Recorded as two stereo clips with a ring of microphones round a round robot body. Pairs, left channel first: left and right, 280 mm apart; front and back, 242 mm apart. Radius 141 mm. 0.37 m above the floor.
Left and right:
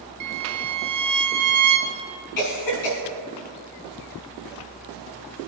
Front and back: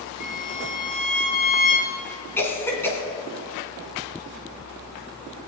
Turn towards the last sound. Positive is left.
turn(degrees=80)